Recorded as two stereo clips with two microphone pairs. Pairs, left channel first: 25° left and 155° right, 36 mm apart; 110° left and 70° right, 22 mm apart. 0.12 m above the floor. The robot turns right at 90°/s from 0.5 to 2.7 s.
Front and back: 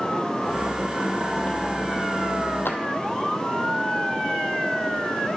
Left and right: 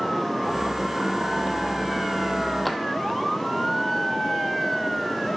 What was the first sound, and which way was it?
A drawer, 20° left.